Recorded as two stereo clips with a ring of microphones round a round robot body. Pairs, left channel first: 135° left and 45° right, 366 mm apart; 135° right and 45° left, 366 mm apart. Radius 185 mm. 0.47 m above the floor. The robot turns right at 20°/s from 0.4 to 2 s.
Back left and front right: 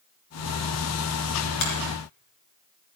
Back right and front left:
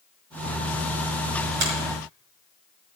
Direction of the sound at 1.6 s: 95° left.